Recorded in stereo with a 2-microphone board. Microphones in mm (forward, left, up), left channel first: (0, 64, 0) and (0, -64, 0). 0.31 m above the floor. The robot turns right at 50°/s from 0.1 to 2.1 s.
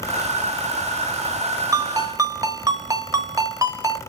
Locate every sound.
1.7 s a ringtone: 25° right (ahead or behind), 0.9 m